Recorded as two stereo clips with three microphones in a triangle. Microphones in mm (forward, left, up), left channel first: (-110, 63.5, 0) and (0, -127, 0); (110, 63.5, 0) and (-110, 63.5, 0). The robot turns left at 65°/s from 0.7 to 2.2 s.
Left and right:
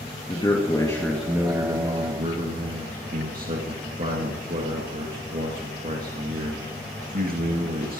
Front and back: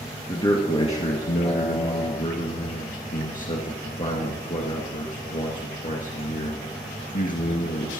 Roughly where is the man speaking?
Ahead left.